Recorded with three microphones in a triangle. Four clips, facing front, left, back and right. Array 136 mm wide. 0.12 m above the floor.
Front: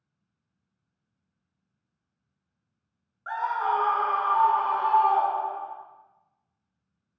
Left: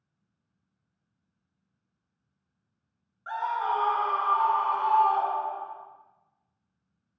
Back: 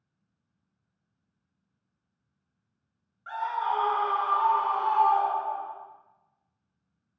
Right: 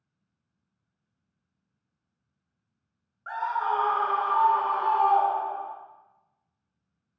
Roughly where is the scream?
Ahead.